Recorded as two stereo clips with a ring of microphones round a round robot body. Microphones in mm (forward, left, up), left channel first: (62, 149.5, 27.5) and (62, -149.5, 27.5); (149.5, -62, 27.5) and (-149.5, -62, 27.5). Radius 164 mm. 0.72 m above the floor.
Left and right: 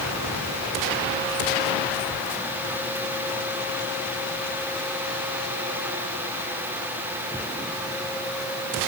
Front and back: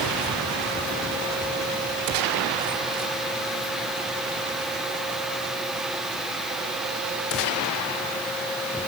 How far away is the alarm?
I don't hear an alarm.